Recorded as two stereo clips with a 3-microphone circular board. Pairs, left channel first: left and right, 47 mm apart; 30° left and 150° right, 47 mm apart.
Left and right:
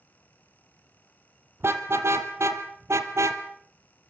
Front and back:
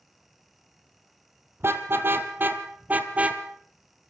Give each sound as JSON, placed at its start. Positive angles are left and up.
{"t": 1.6, "sound": "a car horn", "azimuth_deg": -120, "distance_m": 2.5}